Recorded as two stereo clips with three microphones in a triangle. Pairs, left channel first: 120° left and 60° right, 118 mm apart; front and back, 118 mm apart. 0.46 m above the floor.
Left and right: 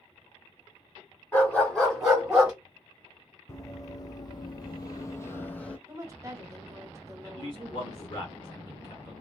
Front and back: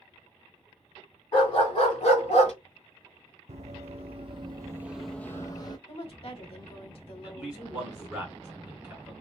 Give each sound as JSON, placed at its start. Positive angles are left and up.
{"t": 1.3, "sound": "a dog barking", "azimuth_deg": 45, "distance_m": 1.8}
{"t": 3.5, "sound": "running footsteps", "azimuth_deg": 180, "distance_m": 1.0}
{"t": 5.9, "sound": "a woman speaking", "azimuth_deg": -5, "distance_m": 1.1}
{"t": 7.2, "sound": "a man speaking", "azimuth_deg": 100, "distance_m": 1.7}